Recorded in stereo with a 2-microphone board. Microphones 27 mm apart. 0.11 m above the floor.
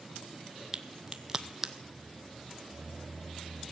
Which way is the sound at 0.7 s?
25° right (ahead or behind).